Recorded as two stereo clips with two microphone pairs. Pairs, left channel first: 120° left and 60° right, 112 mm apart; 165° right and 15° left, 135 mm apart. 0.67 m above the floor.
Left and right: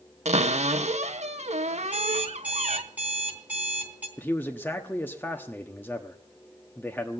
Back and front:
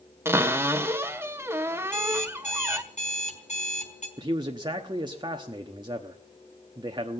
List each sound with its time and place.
0.2 s a cupboard door: 55° right, 0.8 m
1.8 s an alarm clock: 135° right, 4 m
4.2 s a man speaking: 55° left, 1.1 m